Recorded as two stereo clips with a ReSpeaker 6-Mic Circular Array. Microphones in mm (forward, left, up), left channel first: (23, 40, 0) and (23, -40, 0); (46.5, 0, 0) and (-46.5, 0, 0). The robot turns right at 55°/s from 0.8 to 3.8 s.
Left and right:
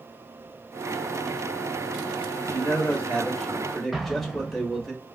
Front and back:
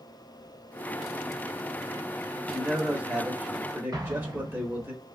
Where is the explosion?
175° right, 0.9 m.